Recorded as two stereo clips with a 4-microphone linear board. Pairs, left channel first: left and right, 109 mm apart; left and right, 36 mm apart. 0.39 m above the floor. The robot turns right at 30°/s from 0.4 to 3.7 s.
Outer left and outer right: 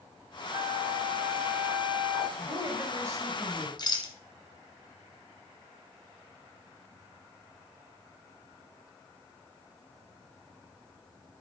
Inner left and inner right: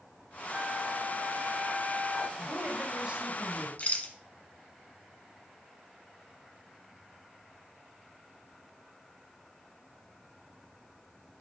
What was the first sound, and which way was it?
A flute, 65° right.